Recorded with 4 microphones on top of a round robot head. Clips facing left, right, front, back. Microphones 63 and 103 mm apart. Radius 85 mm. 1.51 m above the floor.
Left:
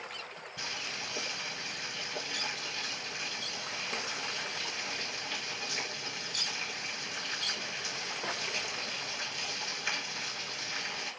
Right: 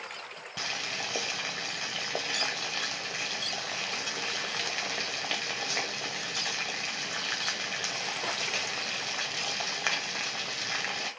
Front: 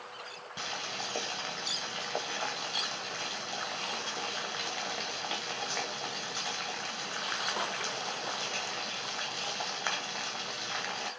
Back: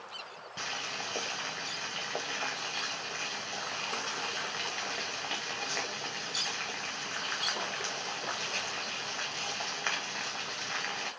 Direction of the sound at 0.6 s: 80° right.